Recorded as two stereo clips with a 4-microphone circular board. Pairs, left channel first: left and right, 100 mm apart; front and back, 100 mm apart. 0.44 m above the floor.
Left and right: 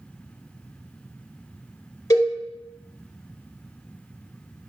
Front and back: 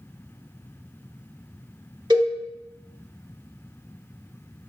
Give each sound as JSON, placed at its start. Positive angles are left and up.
{"t": 2.1, "sound": "a cowbell", "azimuth_deg": 140, "distance_m": 0.6}